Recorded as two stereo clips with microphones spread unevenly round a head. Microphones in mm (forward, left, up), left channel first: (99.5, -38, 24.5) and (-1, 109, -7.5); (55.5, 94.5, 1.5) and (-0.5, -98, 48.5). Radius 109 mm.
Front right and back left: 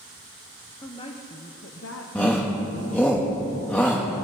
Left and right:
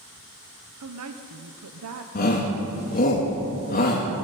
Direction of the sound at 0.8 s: 135° right.